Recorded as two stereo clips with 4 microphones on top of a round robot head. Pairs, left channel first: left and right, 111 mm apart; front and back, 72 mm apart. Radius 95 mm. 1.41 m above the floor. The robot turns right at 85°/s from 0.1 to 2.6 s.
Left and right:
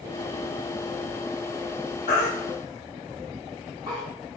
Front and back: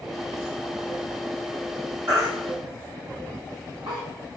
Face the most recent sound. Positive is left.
turn(degrees=175)